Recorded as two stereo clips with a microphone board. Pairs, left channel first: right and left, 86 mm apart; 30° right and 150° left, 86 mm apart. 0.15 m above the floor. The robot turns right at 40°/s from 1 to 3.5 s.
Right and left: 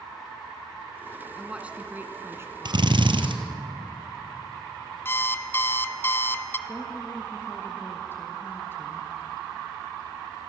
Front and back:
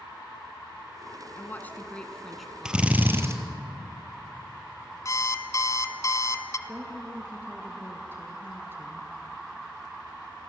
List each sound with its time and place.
1.4 s a woman speaking: 15° left, 1.7 m; by 2.9 s 75° left, 1.7 m
2.6 s a drill: 70° left, 1.9 m; by 3.4 s 95° left, 1.9 m
5.0 s an alarm clock: 45° right, 1.1 m
6.7 s a woman speaking: 150° right, 3 m